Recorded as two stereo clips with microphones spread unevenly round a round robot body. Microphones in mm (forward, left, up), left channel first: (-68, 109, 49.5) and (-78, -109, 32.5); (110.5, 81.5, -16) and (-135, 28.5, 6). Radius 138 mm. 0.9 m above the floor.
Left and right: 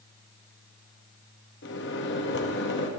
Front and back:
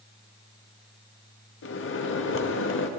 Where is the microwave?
45° left, 1.1 m.